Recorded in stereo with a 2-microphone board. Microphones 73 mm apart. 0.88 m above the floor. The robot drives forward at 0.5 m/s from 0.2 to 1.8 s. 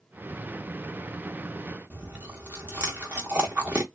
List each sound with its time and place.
1.9 s chewing: 20° right (ahead or behind), 1.0 m